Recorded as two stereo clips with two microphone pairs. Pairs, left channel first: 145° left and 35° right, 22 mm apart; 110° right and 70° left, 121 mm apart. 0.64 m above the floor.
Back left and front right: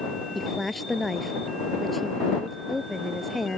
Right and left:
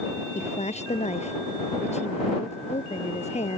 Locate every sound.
0.3 s a woman speaking: 130° right